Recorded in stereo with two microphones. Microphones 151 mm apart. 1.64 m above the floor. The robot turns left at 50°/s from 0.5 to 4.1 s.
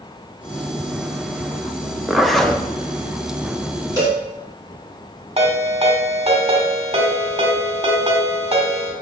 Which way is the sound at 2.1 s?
5° right (ahead or behind).